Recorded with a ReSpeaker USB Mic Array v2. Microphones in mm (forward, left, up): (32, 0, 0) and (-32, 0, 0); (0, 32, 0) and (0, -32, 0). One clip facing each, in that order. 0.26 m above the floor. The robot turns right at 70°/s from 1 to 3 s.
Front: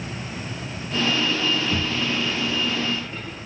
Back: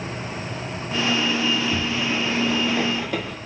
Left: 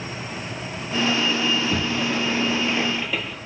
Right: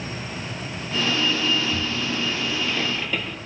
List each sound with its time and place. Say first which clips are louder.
1.5 s a sliding door: back 1 dB, left 2 dB; 70° left, 1.7 m; by 3.4 s 175° left, 1.7 m